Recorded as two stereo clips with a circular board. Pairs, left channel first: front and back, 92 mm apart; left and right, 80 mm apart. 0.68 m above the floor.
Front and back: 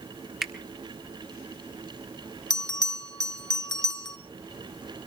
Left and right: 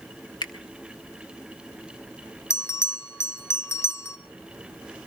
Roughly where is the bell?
Ahead left.